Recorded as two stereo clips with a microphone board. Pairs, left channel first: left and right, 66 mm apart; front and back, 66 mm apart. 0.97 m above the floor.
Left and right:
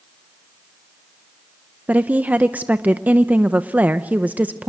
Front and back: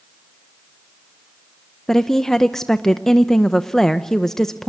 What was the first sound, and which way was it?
A woman speaking, 75° right.